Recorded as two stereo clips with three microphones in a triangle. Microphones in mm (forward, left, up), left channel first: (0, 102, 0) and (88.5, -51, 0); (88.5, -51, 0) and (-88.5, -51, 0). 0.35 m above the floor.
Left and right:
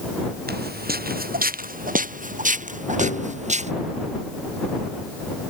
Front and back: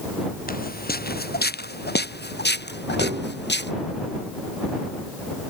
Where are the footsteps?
35° right; by 3.7 s 10° right.